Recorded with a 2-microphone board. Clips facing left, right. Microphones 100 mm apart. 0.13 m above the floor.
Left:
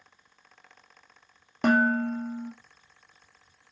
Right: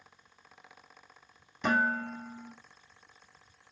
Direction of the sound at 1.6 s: 65° left (ahead or behind).